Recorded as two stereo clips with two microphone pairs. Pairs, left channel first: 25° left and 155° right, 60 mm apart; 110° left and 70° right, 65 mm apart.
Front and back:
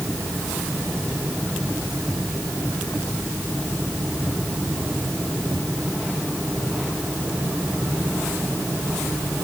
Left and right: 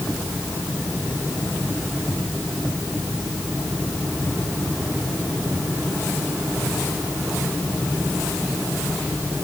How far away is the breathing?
I don't hear breathing.